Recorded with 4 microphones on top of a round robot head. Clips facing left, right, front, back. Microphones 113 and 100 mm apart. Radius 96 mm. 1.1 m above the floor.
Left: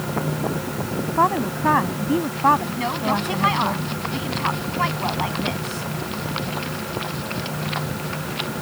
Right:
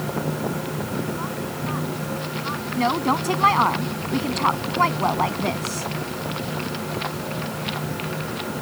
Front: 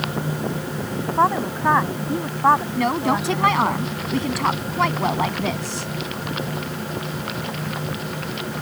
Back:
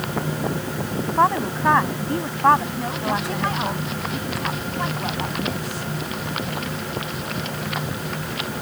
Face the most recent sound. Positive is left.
turn(degrees=-30)